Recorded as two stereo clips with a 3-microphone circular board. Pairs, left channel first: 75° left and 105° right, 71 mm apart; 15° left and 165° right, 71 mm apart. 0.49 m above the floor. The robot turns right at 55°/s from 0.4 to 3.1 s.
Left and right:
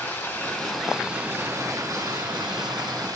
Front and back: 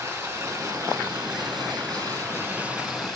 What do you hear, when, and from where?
0.0 s running water: 140° left, 3.5 m; by 3.1 s 70° right, 3.5 m